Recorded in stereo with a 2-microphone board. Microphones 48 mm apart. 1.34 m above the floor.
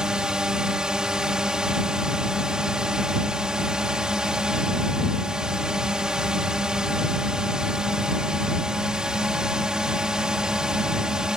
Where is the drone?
15° right (ahead or behind).